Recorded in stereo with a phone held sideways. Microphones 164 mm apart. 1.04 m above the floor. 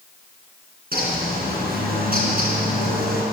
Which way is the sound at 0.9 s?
65° right (ahead or behind).